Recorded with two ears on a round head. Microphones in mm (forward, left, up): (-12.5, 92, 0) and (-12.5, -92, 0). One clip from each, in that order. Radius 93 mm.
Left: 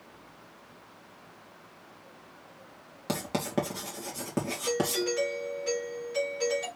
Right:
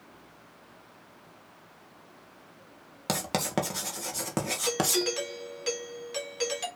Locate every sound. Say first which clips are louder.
3.1 s writing: right 2 dB; 45° right (ahead or behind), 2.5 m
4.7 s a doorbell: right 1 dB; 80° right, 3.5 m